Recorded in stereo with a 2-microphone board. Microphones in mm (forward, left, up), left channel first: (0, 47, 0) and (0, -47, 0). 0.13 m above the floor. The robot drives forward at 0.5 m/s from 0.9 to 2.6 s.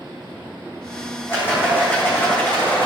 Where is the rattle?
25° left (ahead or behind), 4.5 m; by 2.9 s 20° left (ahead or behind), 5 m.